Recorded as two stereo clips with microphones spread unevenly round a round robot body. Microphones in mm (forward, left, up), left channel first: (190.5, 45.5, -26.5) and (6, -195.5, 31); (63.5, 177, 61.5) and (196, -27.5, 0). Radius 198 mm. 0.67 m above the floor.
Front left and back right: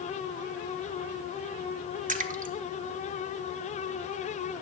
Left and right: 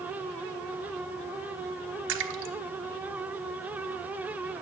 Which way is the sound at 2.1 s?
55° right.